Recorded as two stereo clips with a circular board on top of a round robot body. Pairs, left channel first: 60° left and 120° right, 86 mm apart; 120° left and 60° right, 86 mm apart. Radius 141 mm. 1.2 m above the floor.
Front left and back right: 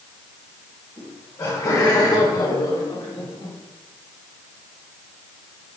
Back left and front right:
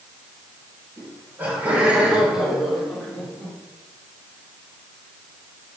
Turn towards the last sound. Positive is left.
turn(degrees=50)